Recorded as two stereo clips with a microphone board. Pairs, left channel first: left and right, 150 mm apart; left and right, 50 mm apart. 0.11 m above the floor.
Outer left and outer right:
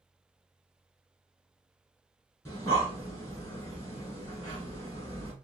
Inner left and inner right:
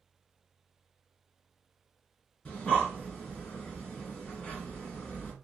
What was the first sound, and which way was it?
Breathing, 20° left (ahead or behind).